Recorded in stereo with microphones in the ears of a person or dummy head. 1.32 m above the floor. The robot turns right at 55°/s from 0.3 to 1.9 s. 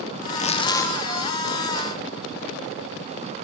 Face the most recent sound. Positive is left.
turn(degrees=-135)